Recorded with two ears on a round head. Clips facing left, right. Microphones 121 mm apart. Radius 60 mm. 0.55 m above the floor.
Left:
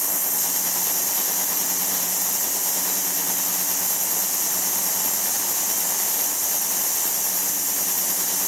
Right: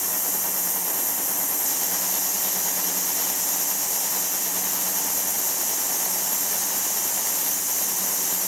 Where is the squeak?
I don't hear a squeak.